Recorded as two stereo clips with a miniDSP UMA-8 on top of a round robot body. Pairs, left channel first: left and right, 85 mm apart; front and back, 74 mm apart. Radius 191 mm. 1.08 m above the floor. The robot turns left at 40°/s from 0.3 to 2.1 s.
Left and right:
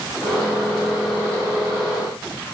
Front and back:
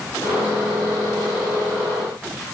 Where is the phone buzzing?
I don't hear a phone buzzing.